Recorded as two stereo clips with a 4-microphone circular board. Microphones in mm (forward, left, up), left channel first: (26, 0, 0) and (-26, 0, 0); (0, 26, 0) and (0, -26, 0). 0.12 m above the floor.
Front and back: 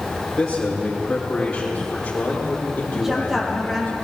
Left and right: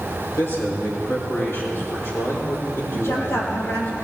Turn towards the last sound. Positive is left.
turn(degrees=100)